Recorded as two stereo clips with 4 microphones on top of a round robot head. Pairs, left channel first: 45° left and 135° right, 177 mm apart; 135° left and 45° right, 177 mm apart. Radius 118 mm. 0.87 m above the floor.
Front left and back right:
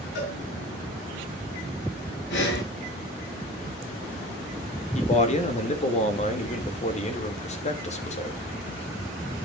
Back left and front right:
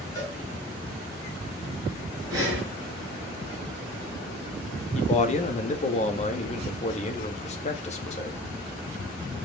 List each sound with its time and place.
0.1 s a cowbell: 60° left, 5 m
2.3 s breathing: 25° left, 6.5 m
5.0 s a man speaking: 90° left, 2 m